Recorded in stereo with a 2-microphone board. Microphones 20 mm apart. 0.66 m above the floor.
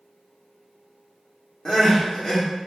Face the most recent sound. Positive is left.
turn(degrees=35)  # may be behind; listen again after turning